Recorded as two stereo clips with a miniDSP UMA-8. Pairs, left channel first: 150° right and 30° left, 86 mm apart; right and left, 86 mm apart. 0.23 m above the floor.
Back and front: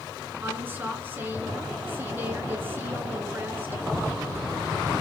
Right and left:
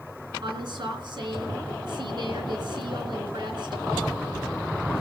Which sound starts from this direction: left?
A woman speaking, at 0.4 s.